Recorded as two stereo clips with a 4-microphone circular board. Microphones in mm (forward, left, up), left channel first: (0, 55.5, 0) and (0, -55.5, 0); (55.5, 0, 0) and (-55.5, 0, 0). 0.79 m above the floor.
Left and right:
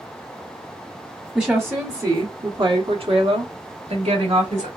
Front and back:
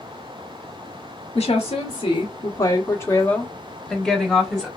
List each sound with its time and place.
1.4 s a woman speaking: 15° right, 1.1 m; by 4.7 s 95° right, 1.6 m